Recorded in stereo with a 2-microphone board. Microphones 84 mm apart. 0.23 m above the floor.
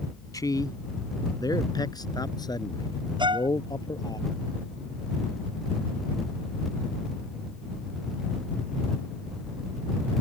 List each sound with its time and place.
0.3 s a man speaking: 45° left (ahead or behind); by 4.2 s 50° left (ahead or behind)
3.2 s a violin: 65° right (ahead or behind)